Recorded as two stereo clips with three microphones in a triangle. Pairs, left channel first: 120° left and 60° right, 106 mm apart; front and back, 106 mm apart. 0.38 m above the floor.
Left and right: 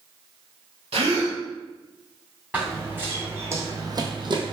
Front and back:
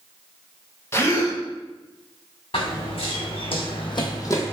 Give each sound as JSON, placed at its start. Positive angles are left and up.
{"t": 0.9, "sound": "a gasp", "azimuth_deg": -65, "distance_m": 0.6}
{"t": 2.5, "sound": "running footsteps", "azimuth_deg": 20, "distance_m": 1.3}